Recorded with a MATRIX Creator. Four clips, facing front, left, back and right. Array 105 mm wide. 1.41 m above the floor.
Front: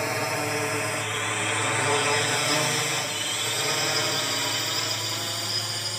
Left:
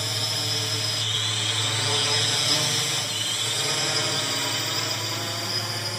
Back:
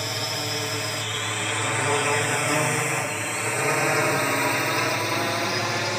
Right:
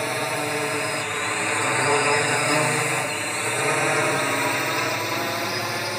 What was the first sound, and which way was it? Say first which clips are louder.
A drone: right 8 dB, front 3 dB; 65° right.